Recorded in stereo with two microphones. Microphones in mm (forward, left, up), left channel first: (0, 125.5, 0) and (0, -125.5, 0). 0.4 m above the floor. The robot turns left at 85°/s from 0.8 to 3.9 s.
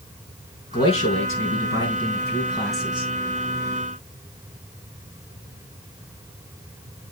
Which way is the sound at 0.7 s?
165° left.